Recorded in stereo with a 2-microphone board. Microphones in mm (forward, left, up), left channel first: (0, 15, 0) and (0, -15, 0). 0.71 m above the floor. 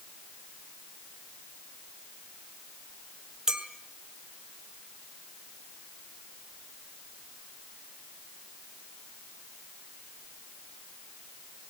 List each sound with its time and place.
3.5 s a clink: 20° right (ahead or behind), 3 m